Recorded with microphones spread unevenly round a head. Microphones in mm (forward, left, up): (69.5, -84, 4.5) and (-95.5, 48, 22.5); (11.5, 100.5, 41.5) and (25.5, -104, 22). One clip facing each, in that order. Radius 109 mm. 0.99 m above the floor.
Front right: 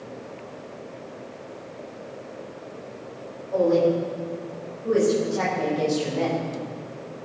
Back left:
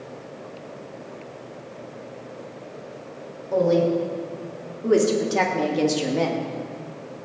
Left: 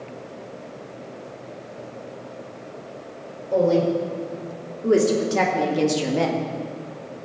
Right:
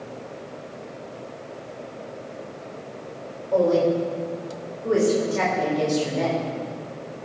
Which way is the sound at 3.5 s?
155° left.